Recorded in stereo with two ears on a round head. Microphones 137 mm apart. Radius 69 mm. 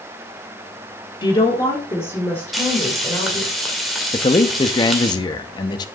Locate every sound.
1.2 s a woman speaking: 30° left (ahead or behind), 1.4 m; by 3.5 s 5° left (ahead or behind), 2.5 m
2.5 s frying: centre (ahead or behind), 2 m
4.1 s a man speaking: 30° left (ahead or behind), 0.7 m